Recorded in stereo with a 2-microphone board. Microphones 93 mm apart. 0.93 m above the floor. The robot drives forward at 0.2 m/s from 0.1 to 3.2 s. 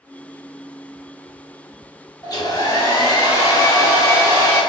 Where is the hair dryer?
45° left (ahead or behind), 0.9 m; by 4.6 s 35° left (ahead or behind), 1.1 m.